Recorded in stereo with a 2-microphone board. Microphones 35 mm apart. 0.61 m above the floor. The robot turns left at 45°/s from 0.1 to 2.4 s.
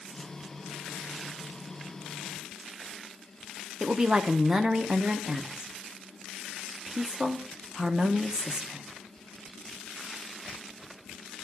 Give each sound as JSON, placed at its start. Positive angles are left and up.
{"t": 3.8, "sound": "a woman speaking", "side_deg": -20, "distance_m": 0.6}